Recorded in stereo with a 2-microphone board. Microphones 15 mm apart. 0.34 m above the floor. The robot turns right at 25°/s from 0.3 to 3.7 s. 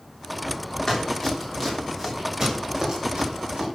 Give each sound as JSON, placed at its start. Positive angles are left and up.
{"t": 0.9, "sound": "running footsteps", "side_deg": 30, "distance_m": 4.0}